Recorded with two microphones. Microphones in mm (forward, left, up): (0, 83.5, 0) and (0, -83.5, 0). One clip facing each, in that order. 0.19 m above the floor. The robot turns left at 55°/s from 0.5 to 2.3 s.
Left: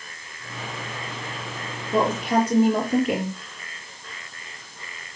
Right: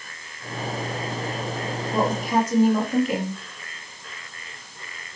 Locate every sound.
1.9 s a woman speaking: 50° left (ahead or behind), 4.5 m; by 3.4 s 65° left (ahead or behind), 4.5 m